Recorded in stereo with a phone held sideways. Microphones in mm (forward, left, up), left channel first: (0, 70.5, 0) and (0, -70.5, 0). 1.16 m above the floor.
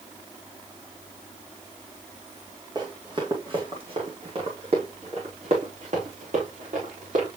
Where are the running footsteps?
30° right (ahead or behind), 3.5 m; by 7.3 s 65° right (ahead or behind), 5 m.